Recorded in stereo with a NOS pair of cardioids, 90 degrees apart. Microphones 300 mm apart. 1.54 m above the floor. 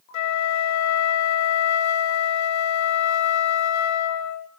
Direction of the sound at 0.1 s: 65° left.